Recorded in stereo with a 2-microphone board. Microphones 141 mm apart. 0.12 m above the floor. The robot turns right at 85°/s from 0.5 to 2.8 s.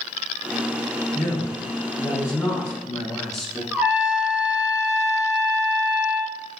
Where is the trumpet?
10° right (ahead or behind), 1.1 m.